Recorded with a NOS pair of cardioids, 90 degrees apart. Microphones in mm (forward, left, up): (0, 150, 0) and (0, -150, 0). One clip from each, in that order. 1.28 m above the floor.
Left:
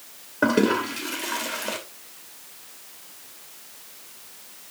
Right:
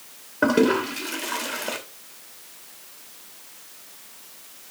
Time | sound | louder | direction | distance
0.4 | a toilet flushing | right 1 dB | 5° right | 2.5 m